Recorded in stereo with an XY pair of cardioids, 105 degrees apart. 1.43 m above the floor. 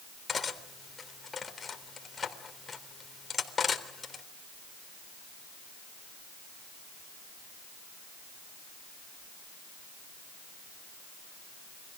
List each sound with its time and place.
0.3 s cutlery clinking: 30° left, 3.5 m